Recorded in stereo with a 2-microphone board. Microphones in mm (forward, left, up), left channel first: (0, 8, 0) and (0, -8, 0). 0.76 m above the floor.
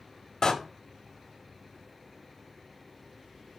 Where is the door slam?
50° left (ahead or behind), 1.2 m.